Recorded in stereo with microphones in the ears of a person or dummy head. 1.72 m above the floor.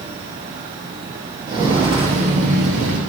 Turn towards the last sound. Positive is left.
turn(degrees=-50)  # may be behind; listen again after turning